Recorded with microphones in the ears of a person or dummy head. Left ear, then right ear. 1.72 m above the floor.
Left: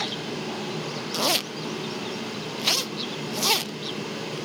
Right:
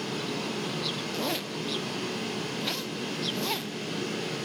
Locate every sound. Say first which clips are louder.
0.0 s a fan: left 2 dB; centre (ahead or behind), 4.5 m
1.1 s a zipper: left 6 dB; 30° left (ahead or behind), 0.6 m